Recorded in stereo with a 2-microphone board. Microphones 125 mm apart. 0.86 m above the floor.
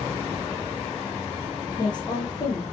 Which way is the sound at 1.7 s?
35° left (ahead or behind).